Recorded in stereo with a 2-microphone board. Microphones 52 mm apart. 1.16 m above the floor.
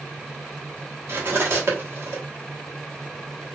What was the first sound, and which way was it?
Cutlery clinking, 50° right (ahead or behind).